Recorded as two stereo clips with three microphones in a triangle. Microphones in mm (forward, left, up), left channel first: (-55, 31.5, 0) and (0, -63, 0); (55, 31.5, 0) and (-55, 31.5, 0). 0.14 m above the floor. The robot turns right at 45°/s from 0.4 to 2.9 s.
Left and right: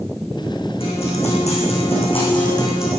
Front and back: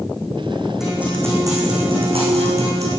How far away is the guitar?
About 5 m.